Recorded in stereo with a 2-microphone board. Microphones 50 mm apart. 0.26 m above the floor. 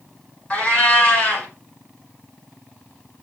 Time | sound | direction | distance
0.5 | a cat meowing | 25° left (ahead or behind) | 1.2 m